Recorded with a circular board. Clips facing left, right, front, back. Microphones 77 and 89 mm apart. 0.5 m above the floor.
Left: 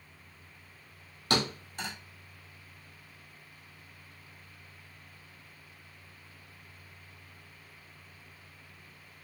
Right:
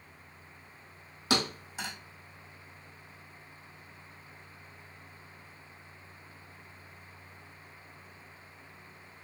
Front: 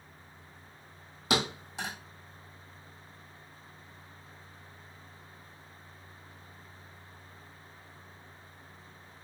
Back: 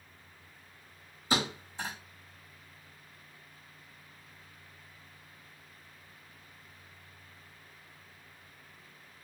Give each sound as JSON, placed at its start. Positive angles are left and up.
{"t": 1.3, "sound": "a thud", "azimuth_deg": -5, "distance_m": 1.9}